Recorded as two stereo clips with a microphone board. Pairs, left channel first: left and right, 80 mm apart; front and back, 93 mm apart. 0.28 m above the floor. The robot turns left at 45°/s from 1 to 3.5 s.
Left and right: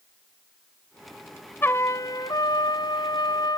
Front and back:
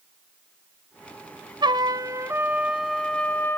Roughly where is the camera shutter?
No camera shutter in this recording.